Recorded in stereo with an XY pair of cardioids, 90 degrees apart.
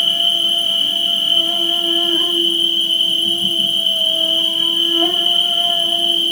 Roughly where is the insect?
Ahead left.